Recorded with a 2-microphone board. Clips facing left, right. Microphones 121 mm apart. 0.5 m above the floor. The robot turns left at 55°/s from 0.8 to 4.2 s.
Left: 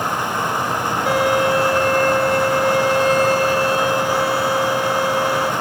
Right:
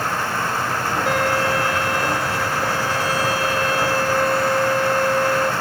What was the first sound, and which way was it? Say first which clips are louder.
A violin: left 5 dB; straight behind.